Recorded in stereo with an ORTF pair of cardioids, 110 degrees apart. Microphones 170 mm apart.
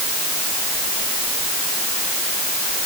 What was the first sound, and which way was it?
Only background noise.